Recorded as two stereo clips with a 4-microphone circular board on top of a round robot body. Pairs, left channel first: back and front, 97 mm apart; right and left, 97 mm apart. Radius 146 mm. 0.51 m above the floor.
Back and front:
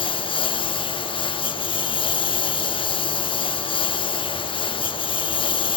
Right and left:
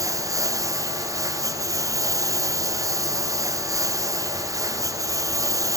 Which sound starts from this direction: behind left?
A lawn mower, at 0.0 s.